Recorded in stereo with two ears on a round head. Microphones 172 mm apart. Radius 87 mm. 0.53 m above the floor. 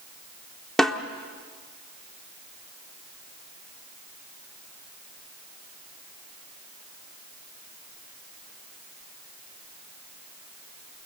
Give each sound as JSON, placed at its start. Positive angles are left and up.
{"t": 0.8, "sound": "a snare drum", "side_deg": 0, "distance_m": 0.9}